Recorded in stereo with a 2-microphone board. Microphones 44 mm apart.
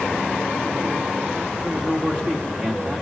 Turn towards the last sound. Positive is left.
turn(degrees=-30)  # may be behind; listen again after turning